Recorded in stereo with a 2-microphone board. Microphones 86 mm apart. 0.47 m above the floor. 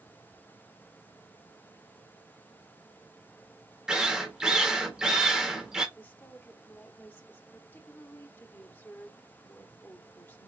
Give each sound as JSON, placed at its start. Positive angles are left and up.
{"t": 3.9, "sound": "a drill", "side_deg": -5, "distance_m": 1.5}
{"t": 6.0, "sound": "a woman speaking", "side_deg": 25, "distance_m": 1.0}